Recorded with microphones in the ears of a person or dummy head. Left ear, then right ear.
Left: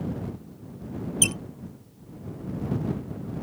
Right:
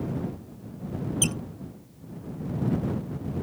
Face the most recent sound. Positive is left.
turn(degrees=15)  # may be behind; listen again after turning